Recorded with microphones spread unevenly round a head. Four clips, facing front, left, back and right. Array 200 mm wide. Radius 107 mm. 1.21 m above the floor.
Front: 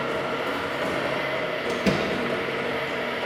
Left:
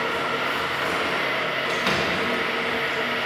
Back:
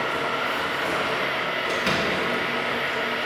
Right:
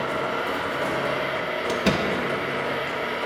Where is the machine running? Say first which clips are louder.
Even, back 1 dB; 30° right, 2.5 m.